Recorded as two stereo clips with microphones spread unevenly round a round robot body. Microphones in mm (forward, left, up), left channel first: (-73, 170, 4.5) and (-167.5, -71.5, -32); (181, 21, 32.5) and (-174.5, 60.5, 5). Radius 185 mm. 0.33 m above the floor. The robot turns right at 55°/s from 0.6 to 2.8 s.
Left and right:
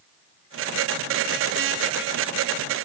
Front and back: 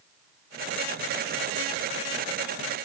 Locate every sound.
Only background noise.